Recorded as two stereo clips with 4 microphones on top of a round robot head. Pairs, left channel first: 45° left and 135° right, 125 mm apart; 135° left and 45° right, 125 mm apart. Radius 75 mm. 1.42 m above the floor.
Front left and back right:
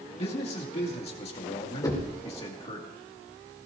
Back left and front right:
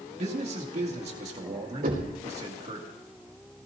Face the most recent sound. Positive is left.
turn(degrees=-20)